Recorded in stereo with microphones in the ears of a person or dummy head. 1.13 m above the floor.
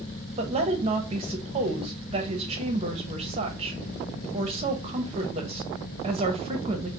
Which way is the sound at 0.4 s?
30° right (ahead or behind).